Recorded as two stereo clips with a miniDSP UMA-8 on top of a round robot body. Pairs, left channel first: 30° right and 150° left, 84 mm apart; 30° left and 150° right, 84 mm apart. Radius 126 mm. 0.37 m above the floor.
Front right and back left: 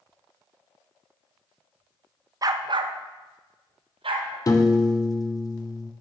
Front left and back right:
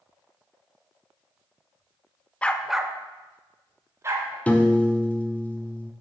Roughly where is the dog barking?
Left.